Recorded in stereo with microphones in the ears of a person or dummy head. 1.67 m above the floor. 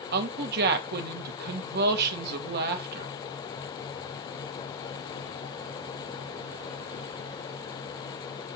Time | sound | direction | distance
0.1 | a woman speaking | 55° right (ahead or behind) | 1.5 m